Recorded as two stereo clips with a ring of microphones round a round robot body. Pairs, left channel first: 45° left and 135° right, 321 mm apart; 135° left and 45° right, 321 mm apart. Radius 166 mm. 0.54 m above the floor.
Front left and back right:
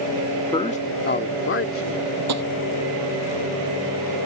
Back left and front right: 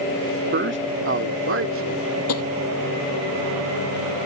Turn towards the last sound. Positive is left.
turn(degrees=180)